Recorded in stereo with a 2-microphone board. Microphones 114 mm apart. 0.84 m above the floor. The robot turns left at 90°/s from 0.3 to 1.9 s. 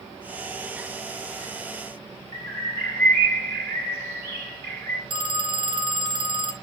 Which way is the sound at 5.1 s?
45° right (ahead or behind).